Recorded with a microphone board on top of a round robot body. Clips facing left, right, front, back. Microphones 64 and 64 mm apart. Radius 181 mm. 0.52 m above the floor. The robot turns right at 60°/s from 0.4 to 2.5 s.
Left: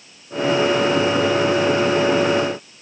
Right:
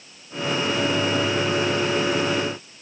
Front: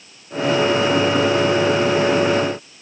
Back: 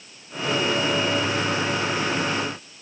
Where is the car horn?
I don't hear a car horn.